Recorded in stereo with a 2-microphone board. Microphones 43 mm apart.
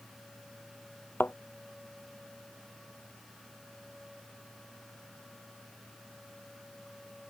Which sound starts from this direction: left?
A thud, at 1.2 s.